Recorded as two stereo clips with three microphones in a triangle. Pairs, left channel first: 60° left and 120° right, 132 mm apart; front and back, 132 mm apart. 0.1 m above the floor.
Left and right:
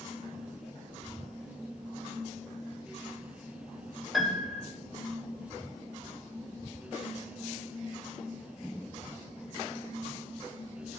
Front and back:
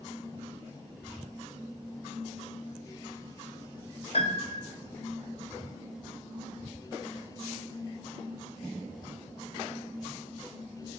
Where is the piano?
30° right, 0.7 m.